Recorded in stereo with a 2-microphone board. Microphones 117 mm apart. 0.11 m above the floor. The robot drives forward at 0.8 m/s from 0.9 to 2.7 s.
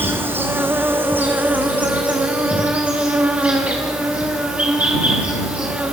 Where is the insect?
15° right (ahead or behind), 2.0 m; by 5.9 s 10° right (ahead or behind), 3.5 m.